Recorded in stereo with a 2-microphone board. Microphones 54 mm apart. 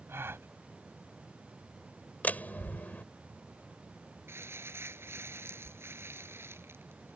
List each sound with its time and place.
0.1 s a gasp: 45° right (ahead or behind)
2.2 s a door slam: 30° left (ahead or behind)
4.3 s crumpling: 45° right (ahead or behind)